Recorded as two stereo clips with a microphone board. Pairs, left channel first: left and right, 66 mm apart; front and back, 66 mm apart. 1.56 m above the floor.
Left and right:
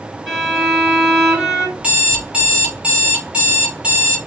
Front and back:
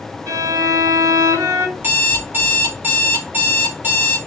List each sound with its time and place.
0.3 s a violin: 175° right, 1.7 m
1.8 s an alarm clock: 145° right, 0.9 m